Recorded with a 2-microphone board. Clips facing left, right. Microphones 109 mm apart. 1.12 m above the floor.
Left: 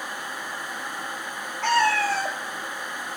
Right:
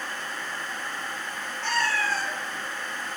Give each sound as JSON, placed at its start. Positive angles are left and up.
{"t": 1.6, "sound": "a cat meowing", "side_deg": 70, "distance_m": 1.9}